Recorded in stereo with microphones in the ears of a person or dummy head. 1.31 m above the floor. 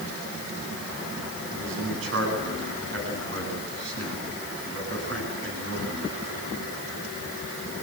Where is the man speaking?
80° right, 9.5 m.